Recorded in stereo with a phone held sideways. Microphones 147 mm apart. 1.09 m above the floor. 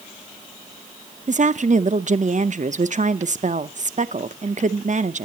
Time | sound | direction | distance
1.3 | a woman speaking | 55° right (ahead or behind) | 0.7 m